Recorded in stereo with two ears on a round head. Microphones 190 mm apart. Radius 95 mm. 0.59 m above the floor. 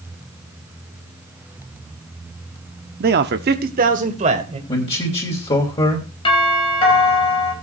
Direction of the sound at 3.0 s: 45° right (ahead or behind).